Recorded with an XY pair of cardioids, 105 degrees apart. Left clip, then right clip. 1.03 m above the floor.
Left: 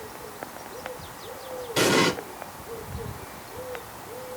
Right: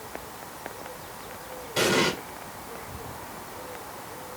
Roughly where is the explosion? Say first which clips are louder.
Left 2 dB; ahead left.